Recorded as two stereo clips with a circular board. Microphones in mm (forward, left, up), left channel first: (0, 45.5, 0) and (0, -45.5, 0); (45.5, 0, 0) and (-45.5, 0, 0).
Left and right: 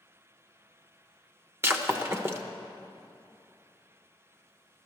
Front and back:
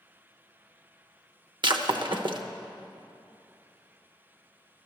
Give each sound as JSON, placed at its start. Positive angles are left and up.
{"t": 1.6, "sound": "breaking glass", "azimuth_deg": -150, "distance_m": 0.8}